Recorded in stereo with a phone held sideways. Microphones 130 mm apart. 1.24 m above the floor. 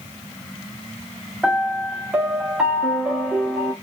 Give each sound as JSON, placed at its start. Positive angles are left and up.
{"t": 1.4, "sound": "a piano", "side_deg": -5, "distance_m": 0.8}